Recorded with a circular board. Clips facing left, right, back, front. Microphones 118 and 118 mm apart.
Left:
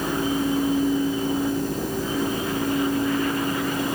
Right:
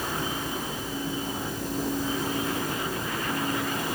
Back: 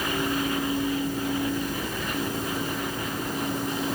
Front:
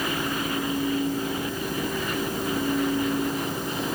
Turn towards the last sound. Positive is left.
No sound to turn to.